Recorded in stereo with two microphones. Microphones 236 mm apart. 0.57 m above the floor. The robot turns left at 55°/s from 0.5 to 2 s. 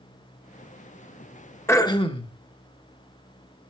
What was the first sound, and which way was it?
Throat clearing, 10° left (ahead or behind).